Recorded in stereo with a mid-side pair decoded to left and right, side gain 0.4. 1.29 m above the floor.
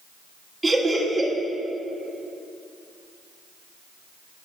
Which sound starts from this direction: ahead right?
Laughter, at 0.6 s.